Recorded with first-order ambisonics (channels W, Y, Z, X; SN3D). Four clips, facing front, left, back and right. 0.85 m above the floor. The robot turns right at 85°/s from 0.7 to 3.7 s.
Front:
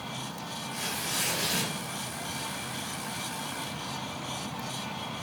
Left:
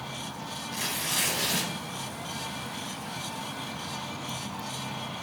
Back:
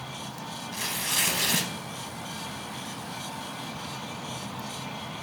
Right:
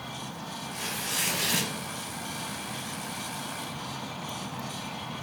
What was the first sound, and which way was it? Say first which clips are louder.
Tearing paper: left 2 dB, back 4 dB; 130° left.